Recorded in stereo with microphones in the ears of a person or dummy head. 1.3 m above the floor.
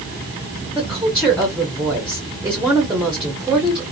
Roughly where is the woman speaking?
Centre.